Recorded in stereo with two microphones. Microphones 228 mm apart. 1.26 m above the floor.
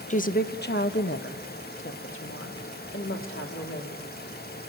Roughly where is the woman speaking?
Left.